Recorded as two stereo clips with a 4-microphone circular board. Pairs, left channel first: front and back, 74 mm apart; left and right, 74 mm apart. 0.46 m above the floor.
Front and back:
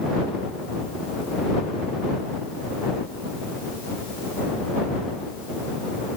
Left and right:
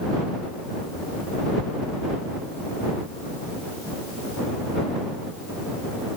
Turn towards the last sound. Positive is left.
No sound to turn to.